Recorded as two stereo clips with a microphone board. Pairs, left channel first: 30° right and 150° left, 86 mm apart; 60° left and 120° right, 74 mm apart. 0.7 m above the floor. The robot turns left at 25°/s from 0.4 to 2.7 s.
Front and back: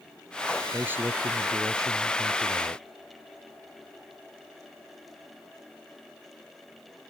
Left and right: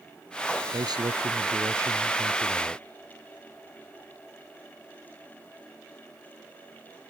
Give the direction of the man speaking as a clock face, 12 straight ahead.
5 o'clock.